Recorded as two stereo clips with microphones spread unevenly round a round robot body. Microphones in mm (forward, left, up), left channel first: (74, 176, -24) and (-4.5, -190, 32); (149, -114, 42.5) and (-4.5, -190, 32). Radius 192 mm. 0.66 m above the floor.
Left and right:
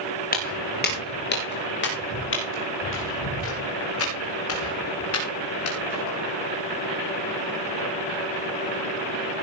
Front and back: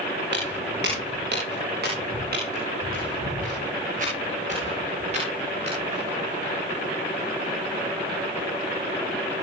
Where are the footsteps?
150° left, 5.5 m; by 6.1 s 130° left, 8 m.